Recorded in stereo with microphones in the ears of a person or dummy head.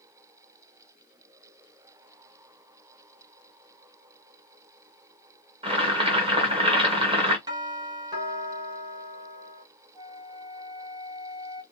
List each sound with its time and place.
5.6 s boiling: 20° right (ahead or behind), 0.8 m
7.5 s a doorbell: 20° right (ahead or behind), 0.9 m
9.9 s a flute: 25° right (ahead or behind), 0.6 m